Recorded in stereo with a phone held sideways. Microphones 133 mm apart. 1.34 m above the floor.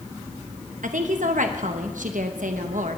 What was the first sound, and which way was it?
A woman speaking, 75° right (ahead or behind).